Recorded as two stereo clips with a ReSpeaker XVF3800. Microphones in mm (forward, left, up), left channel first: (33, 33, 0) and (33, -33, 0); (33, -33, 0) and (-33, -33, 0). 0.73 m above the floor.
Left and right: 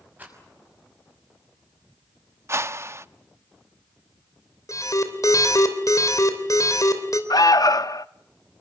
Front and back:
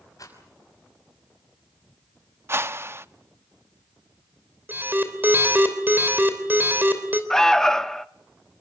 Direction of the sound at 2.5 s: 130° right.